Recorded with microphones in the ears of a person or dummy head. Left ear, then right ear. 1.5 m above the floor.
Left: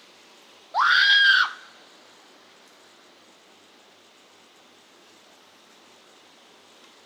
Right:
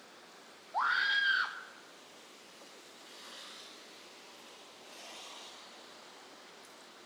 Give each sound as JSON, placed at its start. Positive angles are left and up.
{"t": 0.7, "sound": "a scream", "side_deg": 50, "distance_m": 0.6}